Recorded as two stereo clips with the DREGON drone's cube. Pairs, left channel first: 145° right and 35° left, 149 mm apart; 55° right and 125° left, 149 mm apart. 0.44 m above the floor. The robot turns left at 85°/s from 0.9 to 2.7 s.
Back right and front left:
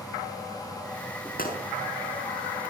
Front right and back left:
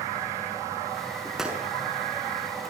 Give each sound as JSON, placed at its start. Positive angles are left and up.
{"t": 1.4, "sound": "a gunshot", "azimuth_deg": -145, "distance_m": 5.5}